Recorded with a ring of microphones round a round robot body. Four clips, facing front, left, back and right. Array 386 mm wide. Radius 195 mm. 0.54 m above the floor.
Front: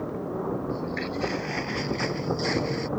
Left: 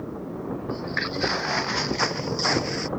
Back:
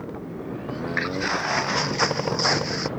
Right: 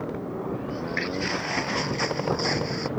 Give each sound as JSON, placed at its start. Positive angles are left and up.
{"t": 0.7, "sound": "footsteps", "azimuth_deg": 165}